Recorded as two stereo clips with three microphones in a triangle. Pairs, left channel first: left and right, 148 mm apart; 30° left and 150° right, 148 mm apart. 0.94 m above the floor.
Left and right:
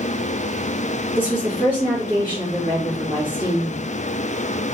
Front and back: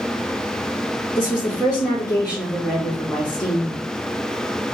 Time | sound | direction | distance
1.1 | a woman speaking | 40° right | 2 m